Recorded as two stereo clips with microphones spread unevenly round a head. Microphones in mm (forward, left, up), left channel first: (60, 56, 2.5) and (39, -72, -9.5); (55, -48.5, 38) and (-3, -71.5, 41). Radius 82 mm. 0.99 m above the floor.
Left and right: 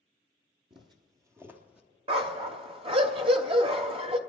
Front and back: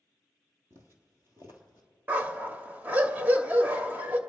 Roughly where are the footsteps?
Behind right.